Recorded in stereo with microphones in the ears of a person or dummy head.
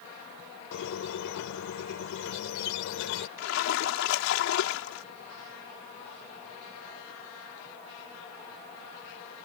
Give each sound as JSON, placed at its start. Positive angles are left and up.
{"t": 0.7, "sound": "a squeak", "side_deg": 70}
{"t": 3.4, "sound": "a splash", "side_deg": 80}